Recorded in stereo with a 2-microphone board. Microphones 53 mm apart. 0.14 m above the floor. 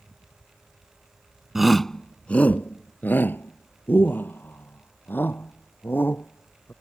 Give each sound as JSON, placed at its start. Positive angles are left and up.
{"t": 1.6, "sound": "a shout", "side_deg": -5}